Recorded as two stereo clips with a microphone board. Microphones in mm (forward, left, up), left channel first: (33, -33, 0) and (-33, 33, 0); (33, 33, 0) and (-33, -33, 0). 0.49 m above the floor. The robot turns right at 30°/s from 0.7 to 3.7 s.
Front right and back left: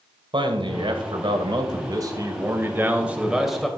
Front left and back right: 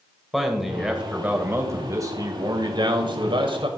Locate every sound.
0.3 s a man speaking: 140° left, 2 m; by 3.7 s 130° right, 2 m